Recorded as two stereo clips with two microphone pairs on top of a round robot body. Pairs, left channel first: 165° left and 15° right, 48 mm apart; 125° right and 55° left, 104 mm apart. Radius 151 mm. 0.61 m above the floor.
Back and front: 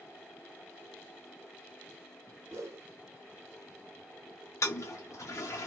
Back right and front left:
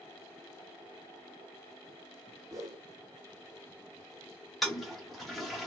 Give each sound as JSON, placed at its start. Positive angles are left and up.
{"t": 2.5, "sound": "a whoosh", "azimuth_deg": -5, "distance_m": 0.8}
{"t": 4.6, "sound": "a toilet flushing", "azimuth_deg": 145, "distance_m": 0.5}